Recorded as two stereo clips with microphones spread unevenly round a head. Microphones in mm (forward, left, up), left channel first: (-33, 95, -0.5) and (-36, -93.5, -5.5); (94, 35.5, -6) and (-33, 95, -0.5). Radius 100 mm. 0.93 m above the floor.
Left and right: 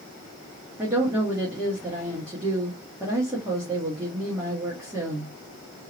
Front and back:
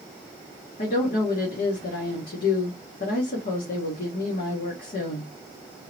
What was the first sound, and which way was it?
A woman speaking, 10° right.